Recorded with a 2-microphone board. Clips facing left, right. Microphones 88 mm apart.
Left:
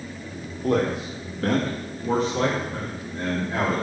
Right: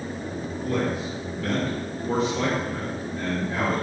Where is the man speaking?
80° left, 2 m; by 3.9 s 25° left (ahead or behind), 4.5 m.